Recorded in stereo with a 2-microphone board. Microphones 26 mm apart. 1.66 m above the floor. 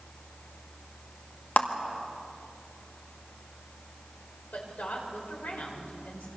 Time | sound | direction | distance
1.6 | a clap | 70° left (ahead or behind) | 2.0 m
4.5 | a woman speaking | 85° left | 6 m